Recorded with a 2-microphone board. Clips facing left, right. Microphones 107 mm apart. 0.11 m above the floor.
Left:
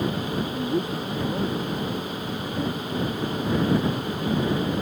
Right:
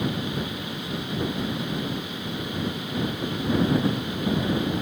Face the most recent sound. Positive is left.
turn(degrees=50)  # may be behind; listen again after turning